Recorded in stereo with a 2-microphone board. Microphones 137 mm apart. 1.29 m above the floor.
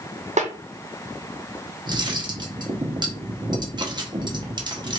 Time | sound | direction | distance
0.4 | a snare drum | 55° right (ahead or behind) | 0.7 m
1.9 | cutlery clinking | 35° right (ahead or behind) | 0.8 m